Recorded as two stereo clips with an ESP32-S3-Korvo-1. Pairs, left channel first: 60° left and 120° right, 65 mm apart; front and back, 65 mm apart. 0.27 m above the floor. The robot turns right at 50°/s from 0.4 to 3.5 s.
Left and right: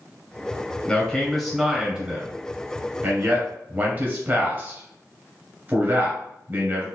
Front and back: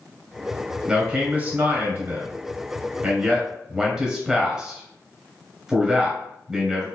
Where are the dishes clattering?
No dishes clattering in this recording.